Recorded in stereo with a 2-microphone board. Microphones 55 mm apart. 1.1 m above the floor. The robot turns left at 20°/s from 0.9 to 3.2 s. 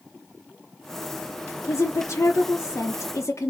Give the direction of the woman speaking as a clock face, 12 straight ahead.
9 o'clock.